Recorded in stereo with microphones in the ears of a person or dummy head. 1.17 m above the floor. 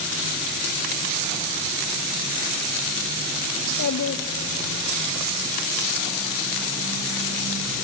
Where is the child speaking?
70° left (ahead or behind), 0.8 m; by 5.0 s 65° left (ahead or behind), 2.5 m.